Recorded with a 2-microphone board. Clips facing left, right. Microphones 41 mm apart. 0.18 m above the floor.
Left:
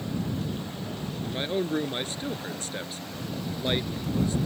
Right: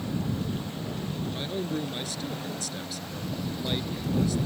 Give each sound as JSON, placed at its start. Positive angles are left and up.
{"t": 1.2, "sound": "a man speaking", "side_deg": 35}